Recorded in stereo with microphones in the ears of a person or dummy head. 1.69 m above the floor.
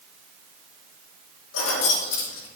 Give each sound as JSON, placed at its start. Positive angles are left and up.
{"t": 1.5, "sound": "keys jangling", "side_deg": 80, "distance_m": 3.0}